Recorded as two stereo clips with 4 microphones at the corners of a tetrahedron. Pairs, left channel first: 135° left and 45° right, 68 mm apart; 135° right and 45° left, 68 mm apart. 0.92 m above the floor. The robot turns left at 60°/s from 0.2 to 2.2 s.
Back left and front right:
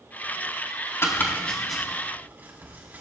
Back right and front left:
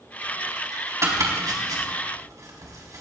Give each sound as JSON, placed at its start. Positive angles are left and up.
{"t": 1.0, "sound": "chopping", "azimuth_deg": 85, "distance_m": 3.5}